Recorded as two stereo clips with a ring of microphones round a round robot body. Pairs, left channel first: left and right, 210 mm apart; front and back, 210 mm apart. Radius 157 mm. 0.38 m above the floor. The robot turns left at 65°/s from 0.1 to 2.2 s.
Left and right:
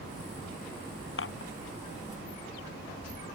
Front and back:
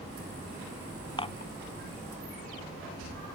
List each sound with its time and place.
1.2 s dishes clattering: 70° left; by 1.5 s 45° left